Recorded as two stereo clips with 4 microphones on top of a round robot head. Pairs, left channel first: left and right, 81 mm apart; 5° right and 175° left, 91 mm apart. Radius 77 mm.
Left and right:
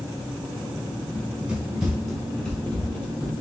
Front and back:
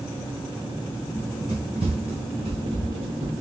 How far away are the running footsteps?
About 1.1 m.